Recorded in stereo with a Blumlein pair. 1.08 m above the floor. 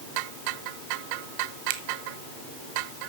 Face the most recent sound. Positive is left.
turn(degrees=-50)